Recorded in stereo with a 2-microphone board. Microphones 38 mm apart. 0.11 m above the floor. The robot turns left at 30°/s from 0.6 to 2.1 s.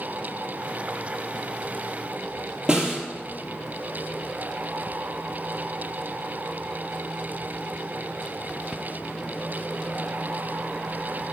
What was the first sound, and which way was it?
A snare drum, 20° right (ahead or behind).